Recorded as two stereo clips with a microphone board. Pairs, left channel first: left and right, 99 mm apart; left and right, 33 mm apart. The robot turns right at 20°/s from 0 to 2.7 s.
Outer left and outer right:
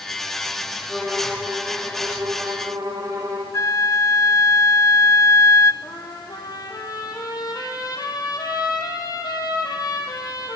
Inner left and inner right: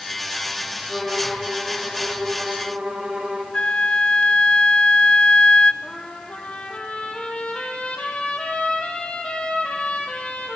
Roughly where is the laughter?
No laughter in this recording.